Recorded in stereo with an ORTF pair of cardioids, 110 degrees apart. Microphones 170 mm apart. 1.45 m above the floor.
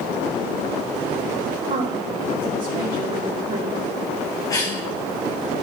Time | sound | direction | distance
1.7 | a woman speaking | 55° right | 3 m
4.5 | a cough | 20° left | 0.8 m